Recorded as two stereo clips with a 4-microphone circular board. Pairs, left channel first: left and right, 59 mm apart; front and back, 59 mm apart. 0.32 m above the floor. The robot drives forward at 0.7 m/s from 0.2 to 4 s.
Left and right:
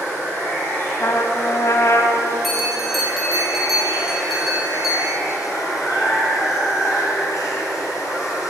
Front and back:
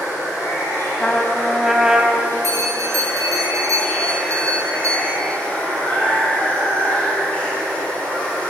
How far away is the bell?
About 2.5 m.